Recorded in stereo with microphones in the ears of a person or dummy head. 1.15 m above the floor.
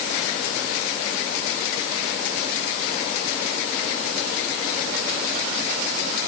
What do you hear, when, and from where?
Only background noise.